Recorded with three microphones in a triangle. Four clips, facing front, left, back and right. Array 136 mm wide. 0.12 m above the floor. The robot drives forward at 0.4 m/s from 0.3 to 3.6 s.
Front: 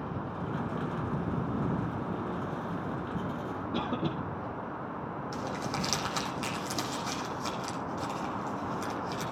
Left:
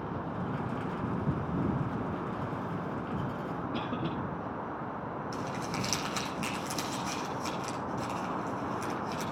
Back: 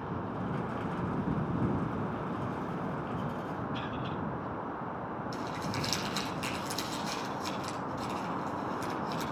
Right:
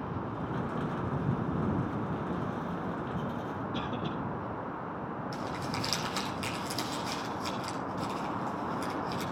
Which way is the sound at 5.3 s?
5° left.